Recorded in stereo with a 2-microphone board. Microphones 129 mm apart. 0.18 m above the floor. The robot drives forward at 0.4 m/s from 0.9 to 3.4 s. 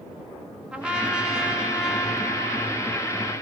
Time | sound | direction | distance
0.7 | a trumpet | 10° right (ahead or behind) | 0.5 m